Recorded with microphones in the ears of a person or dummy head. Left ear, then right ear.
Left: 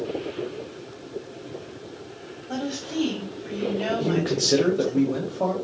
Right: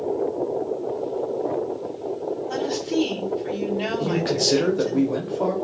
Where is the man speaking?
10° right (ahead or behind), 0.8 m.